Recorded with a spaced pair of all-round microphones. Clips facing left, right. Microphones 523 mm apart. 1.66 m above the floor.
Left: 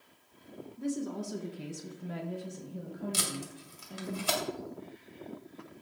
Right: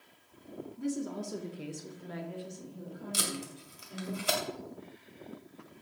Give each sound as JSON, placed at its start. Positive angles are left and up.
{"t": 0.8, "sound": "a woman speaking", "side_deg": -10, "distance_m": 2.5}
{"t": 3.1, "sound": "tape being pulled", "side_deg": 20, "distance_m": 2.5}